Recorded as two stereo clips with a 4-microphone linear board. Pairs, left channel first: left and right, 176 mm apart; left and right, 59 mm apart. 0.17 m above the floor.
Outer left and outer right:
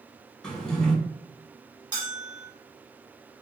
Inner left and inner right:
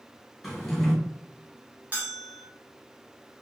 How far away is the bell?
About 1.3 m.